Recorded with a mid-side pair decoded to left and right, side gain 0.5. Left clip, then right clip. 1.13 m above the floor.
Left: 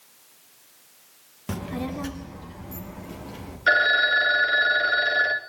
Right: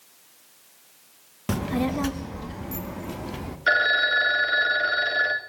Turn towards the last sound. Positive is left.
turn(degrees=0)